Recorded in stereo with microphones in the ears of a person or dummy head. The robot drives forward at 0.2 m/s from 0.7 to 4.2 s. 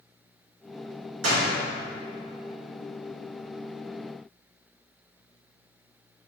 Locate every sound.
1.2 s a door slam: 80° right, 3.5 m